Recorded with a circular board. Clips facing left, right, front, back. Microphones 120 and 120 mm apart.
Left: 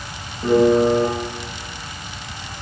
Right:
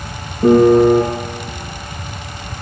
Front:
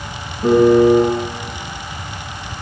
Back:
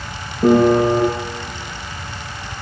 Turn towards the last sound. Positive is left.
turn(degrees=-135)